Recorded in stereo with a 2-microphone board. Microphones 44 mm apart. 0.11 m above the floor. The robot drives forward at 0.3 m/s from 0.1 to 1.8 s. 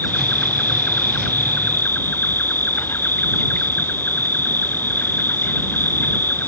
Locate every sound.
0.0 s an insect: 50° left (ahead or behind)